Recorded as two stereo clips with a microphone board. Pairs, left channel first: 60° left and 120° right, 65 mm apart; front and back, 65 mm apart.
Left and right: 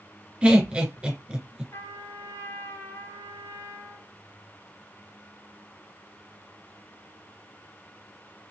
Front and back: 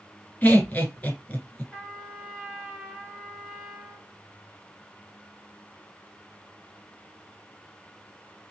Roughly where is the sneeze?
No sneeze in this recording.